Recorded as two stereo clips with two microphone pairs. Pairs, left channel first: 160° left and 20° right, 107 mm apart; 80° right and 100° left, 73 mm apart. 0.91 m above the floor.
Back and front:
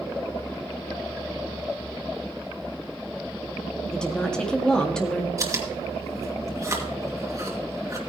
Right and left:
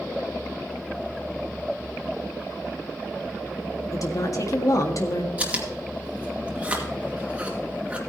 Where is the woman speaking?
115° right, 1.6 m.